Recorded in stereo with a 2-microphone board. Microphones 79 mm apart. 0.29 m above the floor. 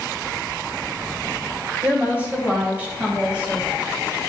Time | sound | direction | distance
1.8 | a woman speaking | 25° right (ahead or behind) | 1.3 m